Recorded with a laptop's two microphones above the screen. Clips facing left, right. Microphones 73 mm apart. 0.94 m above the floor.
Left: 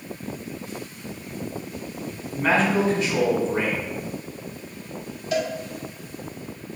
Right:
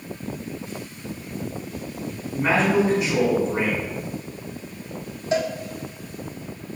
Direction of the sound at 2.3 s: 10° right (ahead or behind).